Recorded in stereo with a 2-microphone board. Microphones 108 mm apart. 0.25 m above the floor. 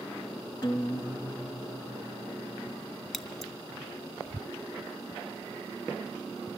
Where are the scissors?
5° left (ahead or behind), 0.9 m.